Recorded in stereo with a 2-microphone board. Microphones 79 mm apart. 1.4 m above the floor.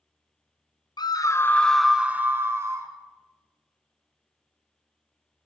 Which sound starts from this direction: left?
A scream, at 1.0 s.